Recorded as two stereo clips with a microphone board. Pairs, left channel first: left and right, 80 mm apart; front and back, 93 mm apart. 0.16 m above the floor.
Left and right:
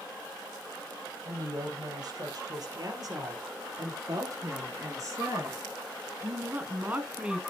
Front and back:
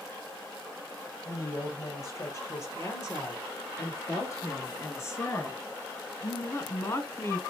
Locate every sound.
1.2 s a woman speaking: 60° right, 4 m; by 7.4 s 20° right, 1.2 m